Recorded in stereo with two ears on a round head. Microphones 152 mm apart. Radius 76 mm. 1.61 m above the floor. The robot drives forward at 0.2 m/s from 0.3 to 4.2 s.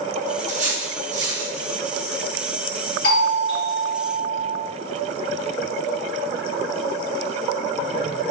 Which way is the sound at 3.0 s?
70° left (ahead or behind).